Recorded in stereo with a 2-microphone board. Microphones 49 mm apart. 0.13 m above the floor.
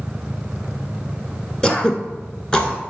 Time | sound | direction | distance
1.6 | throat clearing | 20° left (ahead or behind) | 0.9 m